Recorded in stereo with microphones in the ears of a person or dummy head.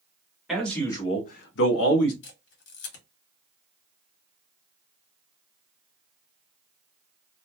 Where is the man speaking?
Centre (ahead or behind), 1.0 m; by 2.1 s 65° left (ahead or behind), 1.0 m.